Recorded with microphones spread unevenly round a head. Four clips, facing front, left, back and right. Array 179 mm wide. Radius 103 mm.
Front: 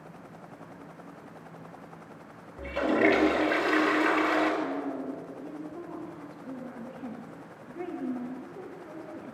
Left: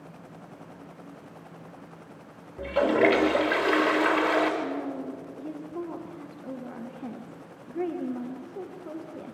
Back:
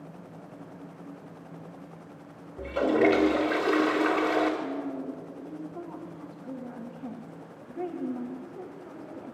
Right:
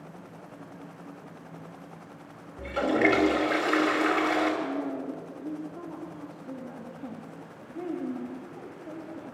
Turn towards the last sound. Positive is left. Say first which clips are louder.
# even, front 1 dB
turn(degrees=110)